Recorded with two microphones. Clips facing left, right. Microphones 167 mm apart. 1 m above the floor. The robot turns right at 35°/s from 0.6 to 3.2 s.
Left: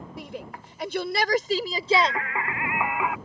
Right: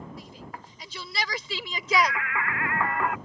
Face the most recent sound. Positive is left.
turn(degrees=180)